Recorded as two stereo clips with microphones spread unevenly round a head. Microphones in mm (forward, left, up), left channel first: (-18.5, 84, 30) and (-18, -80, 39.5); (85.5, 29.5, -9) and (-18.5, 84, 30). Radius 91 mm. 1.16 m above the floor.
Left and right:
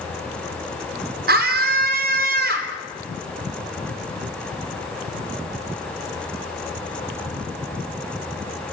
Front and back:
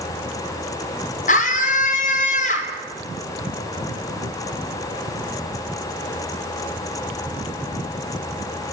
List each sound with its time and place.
1.3 s a scream: 55° right, 3.5 m